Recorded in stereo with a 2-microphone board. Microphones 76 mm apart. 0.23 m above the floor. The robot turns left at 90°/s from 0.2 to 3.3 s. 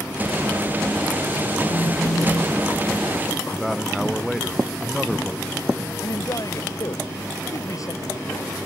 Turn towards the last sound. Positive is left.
turn(degrees=50)  # may be behind; listen again after turning